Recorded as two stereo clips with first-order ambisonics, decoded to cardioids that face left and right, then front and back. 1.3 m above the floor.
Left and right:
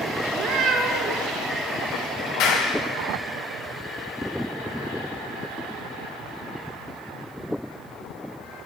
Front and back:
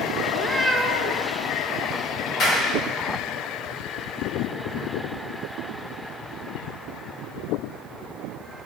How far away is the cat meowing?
About 1.5 m.